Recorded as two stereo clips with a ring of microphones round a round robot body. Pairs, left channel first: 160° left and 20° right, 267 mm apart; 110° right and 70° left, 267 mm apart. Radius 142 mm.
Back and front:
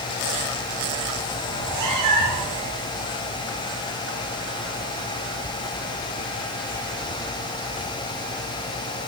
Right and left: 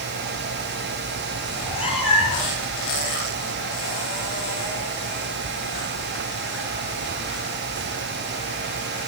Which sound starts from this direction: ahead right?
A cat meowing, at 1.5 s.